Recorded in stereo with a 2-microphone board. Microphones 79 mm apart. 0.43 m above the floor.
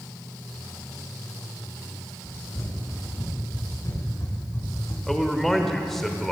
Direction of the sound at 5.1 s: 5° left (ahead or behind).